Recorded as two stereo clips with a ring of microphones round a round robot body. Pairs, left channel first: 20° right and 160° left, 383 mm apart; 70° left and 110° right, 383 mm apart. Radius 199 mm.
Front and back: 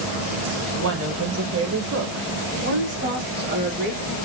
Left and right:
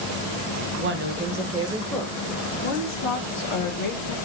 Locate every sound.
0.8 s a woman speaking: 155° right, 1.1 m; by 4.2 s 85° left, 1.5 m